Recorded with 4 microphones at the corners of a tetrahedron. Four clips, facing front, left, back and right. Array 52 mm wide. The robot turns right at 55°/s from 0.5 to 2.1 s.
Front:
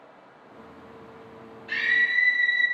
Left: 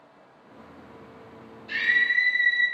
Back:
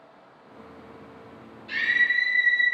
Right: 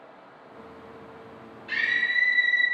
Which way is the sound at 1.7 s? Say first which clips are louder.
Left 2 dB, even; 55° right.